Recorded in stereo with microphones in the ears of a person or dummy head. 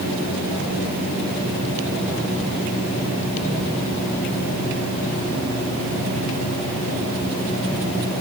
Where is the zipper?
I don't hear a zipper.